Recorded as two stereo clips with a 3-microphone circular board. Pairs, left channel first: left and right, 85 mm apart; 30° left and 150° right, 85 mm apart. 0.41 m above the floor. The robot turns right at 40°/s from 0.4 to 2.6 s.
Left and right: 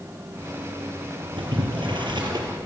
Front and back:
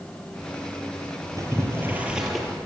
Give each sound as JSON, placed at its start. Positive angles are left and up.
{"t": 1.4, "sound": "boiling", "azimuth_deg": -105, "distance_m": 5.0}